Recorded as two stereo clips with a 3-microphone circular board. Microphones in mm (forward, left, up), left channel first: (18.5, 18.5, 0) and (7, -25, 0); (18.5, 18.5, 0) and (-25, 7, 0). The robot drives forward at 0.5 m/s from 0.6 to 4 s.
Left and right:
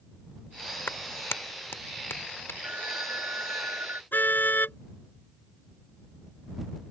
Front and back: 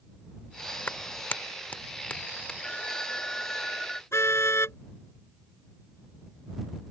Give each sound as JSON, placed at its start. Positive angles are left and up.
{"t": 0.9, "sound": "a clap", "azimuth_deg": 50}
{"t": 2.6, "sound": "a phone ringing", "azimuth_deg": -55}
{"t": 4.1, "sound": "a car horn", "azimuth_deg": 30}